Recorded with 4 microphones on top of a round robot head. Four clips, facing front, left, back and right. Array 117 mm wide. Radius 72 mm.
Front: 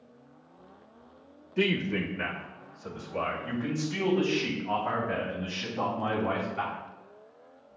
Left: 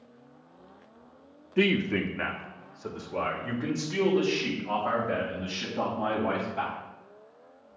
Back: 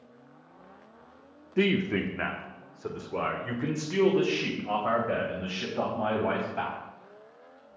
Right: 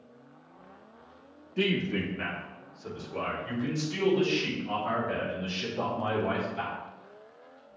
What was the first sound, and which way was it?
A man speaking, 140° left.